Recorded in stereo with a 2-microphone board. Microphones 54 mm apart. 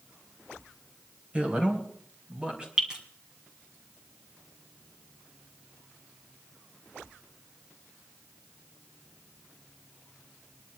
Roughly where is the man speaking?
Right.